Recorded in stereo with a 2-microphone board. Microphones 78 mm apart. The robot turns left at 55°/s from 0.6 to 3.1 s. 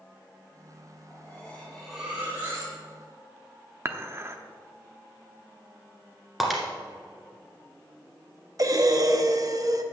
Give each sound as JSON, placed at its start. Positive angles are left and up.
{"t": 1.1, "sound": "cutlery clinking", "azimuth_deg": 45, "distance_m": 3.5}
{"t": 3.9, "sound": "dishes clattering", "side_deg": -30, "distance_m": 0.7}
{"t": 6.4, "sound": "breaking glass", "side_deg": 0, "distance_m": 1.7}
{"t": 8.6, "sound": "breathing", "side_deg": -45, "distance_m": 0.7}